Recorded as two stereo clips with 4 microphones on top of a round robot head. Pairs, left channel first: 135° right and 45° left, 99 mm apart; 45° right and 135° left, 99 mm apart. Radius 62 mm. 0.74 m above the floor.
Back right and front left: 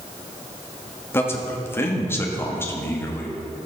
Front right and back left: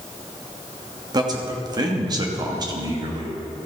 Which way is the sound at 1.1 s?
165° left.